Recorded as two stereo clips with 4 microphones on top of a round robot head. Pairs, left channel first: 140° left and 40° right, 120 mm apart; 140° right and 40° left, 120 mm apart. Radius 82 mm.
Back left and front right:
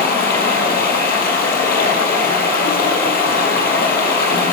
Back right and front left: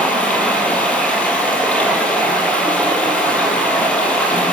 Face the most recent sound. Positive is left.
turn(degrees=140)